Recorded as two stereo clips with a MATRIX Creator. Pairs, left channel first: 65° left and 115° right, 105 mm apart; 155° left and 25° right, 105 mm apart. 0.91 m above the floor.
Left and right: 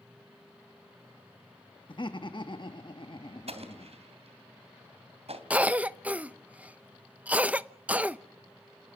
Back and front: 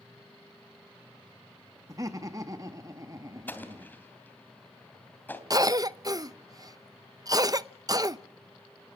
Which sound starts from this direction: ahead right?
A cough, at 5.5 s.